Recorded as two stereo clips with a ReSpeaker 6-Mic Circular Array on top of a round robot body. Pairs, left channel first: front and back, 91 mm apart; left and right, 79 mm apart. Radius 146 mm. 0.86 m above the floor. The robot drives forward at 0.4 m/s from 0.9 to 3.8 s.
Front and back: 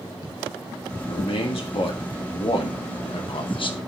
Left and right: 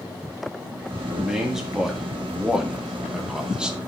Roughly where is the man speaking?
Ahead.